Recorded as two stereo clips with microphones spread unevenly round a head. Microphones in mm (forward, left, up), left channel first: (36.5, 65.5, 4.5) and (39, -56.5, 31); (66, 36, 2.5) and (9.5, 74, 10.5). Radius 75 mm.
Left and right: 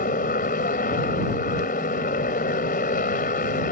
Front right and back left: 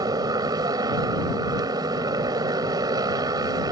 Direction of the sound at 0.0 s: 135° left.